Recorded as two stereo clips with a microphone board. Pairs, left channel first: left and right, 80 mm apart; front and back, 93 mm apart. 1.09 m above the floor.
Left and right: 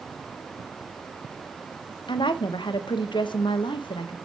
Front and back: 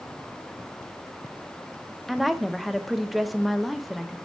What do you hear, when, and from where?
2.1 s a woman speaking: 90° left, 0.6 m